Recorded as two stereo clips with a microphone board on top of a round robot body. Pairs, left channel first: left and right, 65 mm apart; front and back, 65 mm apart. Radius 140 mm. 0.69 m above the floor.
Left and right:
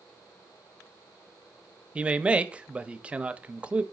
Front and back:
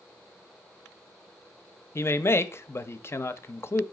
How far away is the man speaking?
About 0.6 m.